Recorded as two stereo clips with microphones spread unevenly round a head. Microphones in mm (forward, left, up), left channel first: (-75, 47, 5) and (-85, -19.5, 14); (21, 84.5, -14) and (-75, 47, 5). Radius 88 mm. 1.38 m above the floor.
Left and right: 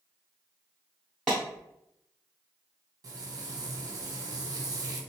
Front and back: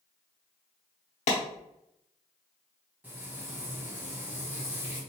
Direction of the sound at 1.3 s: 5° right.